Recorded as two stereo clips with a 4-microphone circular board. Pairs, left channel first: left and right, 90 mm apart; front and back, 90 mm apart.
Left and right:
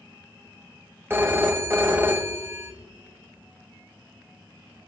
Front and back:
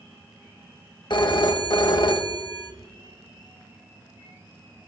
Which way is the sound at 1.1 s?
30° right.